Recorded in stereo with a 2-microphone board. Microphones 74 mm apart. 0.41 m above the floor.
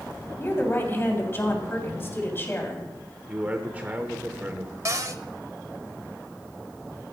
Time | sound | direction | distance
0.4 | a woman speaking | 30° left (ahead or behind) | 3 m
3.3 | a man speaking | 20° right (ahead or behind) | 1.1 m
4.8 | a cupboard door | 45° right (ahead or behind) | 0.7 m